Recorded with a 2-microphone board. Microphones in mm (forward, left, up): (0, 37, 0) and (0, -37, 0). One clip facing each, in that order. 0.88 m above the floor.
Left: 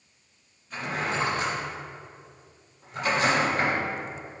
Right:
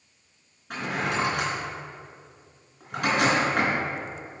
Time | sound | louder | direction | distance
0.7 | a drawer | right 2 dB | 80° right | 3 m